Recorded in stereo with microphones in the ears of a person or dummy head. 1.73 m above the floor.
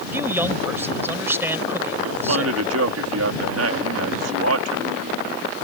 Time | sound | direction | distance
0.1 | a man speaking | 15° right (ahead or behind) | ?
2.0 | a man speaking | 85° right | ?